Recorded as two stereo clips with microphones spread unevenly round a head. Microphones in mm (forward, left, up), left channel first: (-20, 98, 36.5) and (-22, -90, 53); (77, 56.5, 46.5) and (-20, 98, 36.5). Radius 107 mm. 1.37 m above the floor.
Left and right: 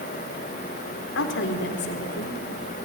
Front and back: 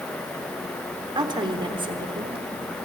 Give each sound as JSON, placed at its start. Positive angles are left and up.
{"t": 1.1, "sound": "a woman speaking", "azimuth_deg": 110, "distance_m": 3.5}